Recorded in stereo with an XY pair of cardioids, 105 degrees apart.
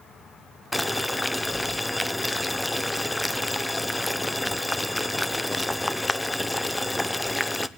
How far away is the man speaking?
I don't hear a man speaking.